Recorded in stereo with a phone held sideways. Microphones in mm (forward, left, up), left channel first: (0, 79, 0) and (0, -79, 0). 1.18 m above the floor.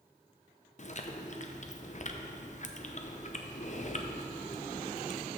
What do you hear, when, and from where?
0.8 s chewing: 50° left (ahead or behind), 0.6 m